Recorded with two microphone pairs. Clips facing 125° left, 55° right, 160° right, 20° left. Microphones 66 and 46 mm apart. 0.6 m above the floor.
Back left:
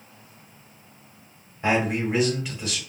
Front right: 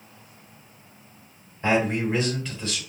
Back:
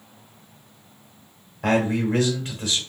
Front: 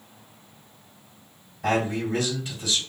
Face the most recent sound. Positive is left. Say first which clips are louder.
# front right 1 dB, back 3 dB
turn(degrees=-155)